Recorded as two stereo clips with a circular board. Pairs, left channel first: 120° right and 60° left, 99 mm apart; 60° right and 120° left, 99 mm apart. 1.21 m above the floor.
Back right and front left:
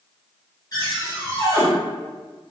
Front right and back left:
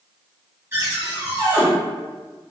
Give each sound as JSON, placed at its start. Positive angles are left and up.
{"t": 0.7, "sound": "a cupboard door", "azimuth_deg": -175, "distance_m": 1.3}